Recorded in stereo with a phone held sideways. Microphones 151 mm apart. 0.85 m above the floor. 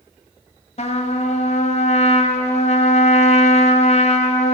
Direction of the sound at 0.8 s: 45° left (ahead or behind).